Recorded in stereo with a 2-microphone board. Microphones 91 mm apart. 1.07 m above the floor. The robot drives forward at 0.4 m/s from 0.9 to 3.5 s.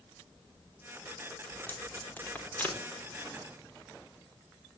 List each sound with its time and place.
1.5 s tape being pulled: 20° left (ahead or behind), 4 m